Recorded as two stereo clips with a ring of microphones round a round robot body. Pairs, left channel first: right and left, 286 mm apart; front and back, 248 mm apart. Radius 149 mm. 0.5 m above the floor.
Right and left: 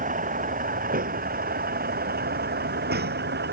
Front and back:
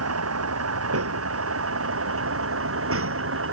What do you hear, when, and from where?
0.0 s a vehicle: 155° left; by 3.5 s 145° left